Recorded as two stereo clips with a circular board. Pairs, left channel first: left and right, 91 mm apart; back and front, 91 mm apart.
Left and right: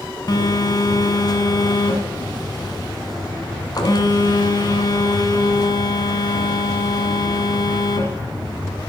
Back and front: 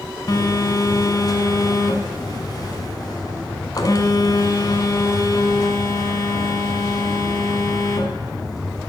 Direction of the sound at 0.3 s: 135° left.